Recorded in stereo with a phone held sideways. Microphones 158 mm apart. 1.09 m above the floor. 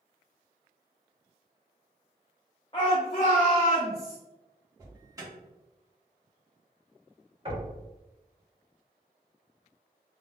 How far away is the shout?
About 0.7 m.